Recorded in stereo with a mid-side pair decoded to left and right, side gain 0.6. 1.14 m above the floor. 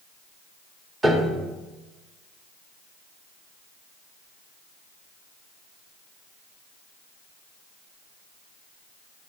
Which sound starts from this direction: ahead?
A piano, at 1.0 s.